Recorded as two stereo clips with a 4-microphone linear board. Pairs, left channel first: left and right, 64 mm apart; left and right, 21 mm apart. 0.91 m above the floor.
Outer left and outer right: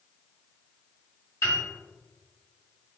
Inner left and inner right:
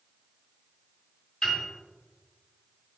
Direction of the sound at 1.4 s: 40° left (ahead or behind).